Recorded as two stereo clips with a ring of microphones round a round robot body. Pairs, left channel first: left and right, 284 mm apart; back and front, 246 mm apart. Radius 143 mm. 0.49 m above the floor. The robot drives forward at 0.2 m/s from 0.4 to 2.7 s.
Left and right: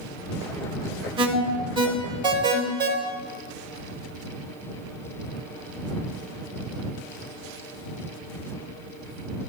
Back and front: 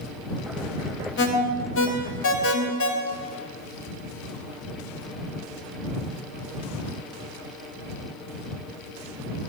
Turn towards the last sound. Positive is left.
turn(degrees=-165)